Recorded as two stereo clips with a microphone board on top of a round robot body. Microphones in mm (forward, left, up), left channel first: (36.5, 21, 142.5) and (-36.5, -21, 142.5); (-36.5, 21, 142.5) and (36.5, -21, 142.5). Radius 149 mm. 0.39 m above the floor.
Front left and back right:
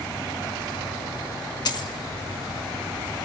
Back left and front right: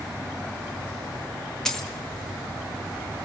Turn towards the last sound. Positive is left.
turn(degrees=65)